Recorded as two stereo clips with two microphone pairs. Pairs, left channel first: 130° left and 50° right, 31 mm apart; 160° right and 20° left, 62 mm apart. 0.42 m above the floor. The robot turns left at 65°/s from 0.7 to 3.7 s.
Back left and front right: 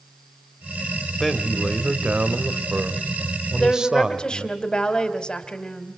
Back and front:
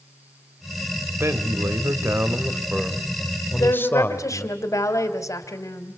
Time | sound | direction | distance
1.2 | a man speaking | 50° left | 1.8 m
3.6 | a woman speaking | 165° right | 3 m